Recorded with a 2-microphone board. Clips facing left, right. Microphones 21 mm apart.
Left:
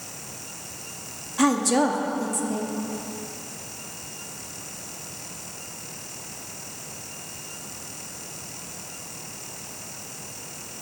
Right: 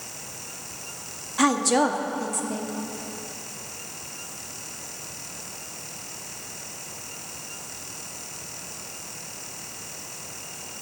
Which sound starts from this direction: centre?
A woman speaking, at 1.4 s.